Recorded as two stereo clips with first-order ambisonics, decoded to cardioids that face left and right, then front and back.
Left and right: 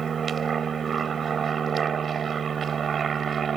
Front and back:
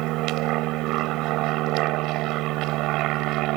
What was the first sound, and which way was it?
An aircraft, 155° right.